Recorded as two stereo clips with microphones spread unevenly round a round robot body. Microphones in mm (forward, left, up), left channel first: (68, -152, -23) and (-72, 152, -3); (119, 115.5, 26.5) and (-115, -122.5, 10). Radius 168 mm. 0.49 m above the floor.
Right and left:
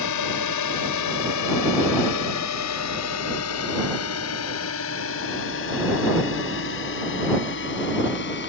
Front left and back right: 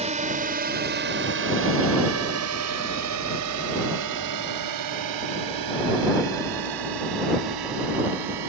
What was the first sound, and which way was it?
A drone, 70° right.